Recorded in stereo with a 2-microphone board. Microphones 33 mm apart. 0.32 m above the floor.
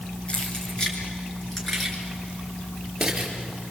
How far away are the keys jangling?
About 3.5 m.